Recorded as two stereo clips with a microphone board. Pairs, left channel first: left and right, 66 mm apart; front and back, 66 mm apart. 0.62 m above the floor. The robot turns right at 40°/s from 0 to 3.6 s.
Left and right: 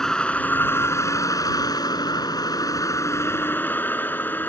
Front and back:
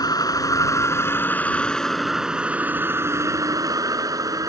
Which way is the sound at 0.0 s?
10° left.